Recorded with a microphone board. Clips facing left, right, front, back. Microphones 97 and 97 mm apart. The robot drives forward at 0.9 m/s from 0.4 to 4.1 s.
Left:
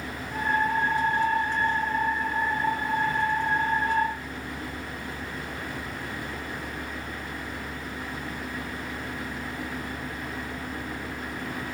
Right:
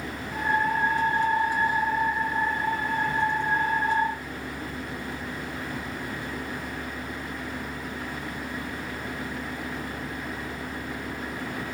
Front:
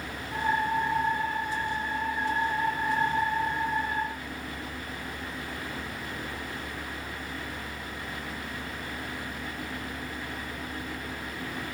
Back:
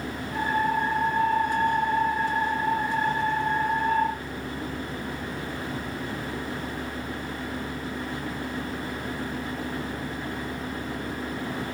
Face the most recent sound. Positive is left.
turn(degrees=-160)